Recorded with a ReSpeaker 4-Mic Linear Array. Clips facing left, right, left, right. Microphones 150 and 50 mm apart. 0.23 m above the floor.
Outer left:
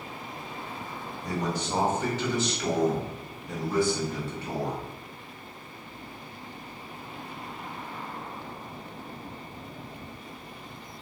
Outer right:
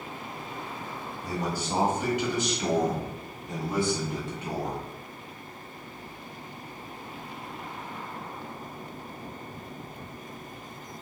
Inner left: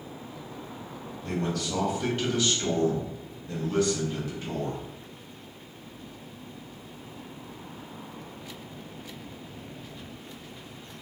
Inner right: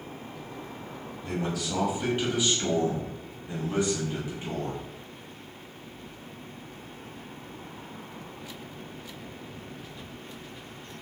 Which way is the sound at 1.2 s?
5° right (ahead or behind).